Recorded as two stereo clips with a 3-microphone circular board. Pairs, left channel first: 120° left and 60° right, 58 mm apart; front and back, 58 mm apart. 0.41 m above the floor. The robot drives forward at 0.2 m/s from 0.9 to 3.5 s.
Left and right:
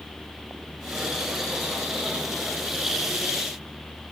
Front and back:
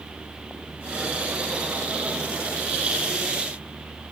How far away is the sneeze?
I don't hear a sneeze.